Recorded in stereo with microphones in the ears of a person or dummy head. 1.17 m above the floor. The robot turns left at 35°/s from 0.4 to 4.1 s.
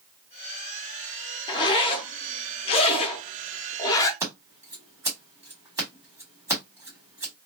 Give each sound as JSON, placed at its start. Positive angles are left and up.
{"t": 1.5, "sound": "a zipper", "side_deg": 25, "distance_m": 0.6}
{"t": 4.2, "sound": "scissors", "side_deg": -20, "distance_m": 1.4}